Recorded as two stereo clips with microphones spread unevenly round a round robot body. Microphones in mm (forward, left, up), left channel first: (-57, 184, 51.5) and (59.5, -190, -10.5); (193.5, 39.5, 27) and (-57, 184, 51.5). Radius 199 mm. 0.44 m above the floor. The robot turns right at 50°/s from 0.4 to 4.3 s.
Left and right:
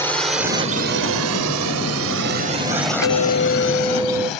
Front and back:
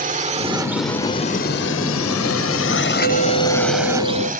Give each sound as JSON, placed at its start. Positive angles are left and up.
{"t": 0.0, "sound": "a drone", "azimuth_deg": -160}
{"t": 3.0, "sound": "a clink", "azimuth_deg": 145}